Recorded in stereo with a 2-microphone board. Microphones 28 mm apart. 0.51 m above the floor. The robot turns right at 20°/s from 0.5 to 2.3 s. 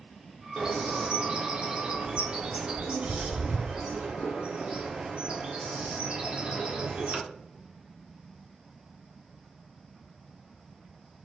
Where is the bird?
30° right (ahead or behind), 0.6 m; by 7.2 s 45° right (ahead or behind), 0.6 m.